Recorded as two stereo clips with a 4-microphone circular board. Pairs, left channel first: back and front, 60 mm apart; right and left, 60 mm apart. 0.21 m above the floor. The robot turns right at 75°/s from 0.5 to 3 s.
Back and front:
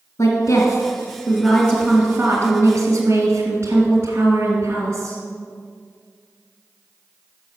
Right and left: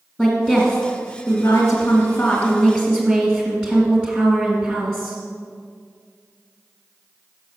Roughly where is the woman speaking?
Behind.